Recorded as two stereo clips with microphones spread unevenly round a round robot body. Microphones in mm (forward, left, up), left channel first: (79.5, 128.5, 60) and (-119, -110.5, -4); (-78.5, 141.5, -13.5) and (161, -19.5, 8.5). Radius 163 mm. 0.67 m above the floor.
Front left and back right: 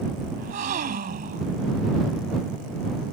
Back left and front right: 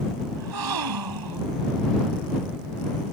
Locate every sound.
0.4 s a gasp: 65° right